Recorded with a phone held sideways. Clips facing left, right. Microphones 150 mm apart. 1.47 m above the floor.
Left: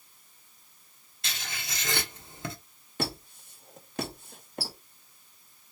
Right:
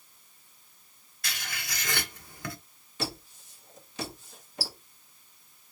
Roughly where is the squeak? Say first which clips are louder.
Left 2 dB; left.